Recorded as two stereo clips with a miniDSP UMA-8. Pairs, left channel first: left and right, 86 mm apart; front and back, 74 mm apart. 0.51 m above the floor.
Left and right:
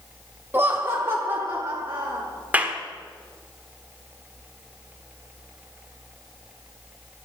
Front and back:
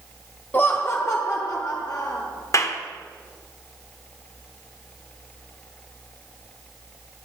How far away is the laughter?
About 0.8 m.